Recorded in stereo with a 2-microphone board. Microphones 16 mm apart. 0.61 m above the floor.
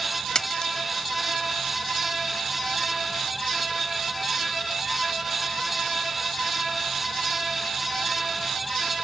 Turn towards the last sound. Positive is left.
turn(degrees=55)  # may be behind; listen again after turning